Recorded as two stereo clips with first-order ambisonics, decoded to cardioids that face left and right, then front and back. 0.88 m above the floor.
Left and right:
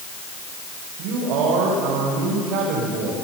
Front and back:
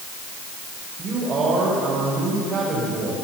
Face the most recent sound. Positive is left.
turn(degrees=-115)